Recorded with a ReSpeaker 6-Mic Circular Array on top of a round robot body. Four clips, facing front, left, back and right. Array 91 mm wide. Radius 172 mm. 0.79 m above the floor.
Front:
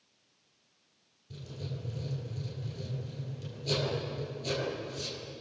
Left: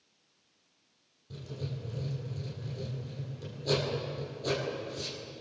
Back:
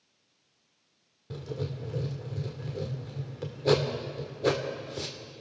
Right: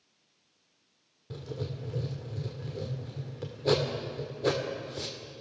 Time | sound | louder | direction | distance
1.3 | writing | right 3 dB, back 7 dB | 150° right | 1.9 m